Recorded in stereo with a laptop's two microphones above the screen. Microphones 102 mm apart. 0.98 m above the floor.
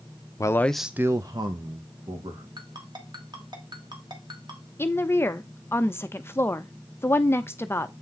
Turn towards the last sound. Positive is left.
turn(degrees=25)  # may be behind; listen again after turning